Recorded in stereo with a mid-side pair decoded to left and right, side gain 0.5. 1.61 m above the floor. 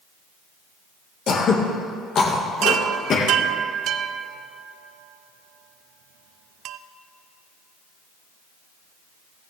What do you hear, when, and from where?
1.3 s throat clearing: 55° left, 1.9 m
2.6 s a chime: 70° right, 0.5 m